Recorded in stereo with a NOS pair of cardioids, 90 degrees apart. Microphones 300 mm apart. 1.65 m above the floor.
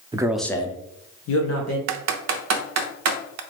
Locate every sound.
0.1 s a man speaking: 15° right, 0.6 m; by 1.8 s 65° left, 1.0 m
1.9 s typing on a keyboard: 65° right, 0.6 m